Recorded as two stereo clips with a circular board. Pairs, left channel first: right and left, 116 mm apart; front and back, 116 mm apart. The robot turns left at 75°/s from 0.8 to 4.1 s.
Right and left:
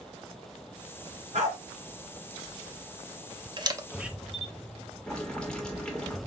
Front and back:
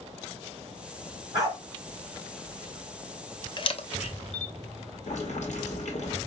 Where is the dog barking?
125° left, 2.5 m; by 1.6 s 105° left, 2.5 m.